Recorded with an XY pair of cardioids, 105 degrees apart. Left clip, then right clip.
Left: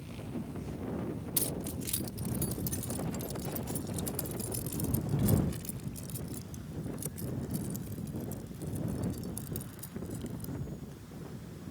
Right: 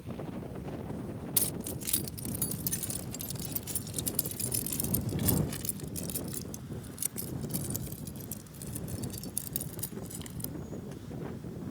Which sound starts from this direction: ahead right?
Keys jangling, at 1.4 s.